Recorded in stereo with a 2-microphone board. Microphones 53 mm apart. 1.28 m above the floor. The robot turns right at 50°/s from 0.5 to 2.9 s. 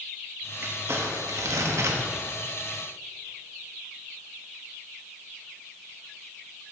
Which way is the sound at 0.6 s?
130° right.